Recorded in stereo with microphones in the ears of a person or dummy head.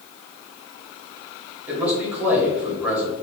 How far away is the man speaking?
About 1.3 m.